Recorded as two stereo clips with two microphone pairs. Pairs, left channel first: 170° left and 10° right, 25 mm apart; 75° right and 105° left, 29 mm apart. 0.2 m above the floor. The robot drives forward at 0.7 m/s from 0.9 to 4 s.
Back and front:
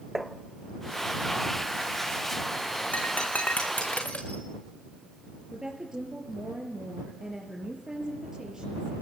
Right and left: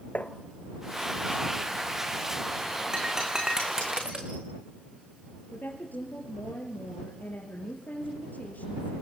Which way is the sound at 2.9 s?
170° left.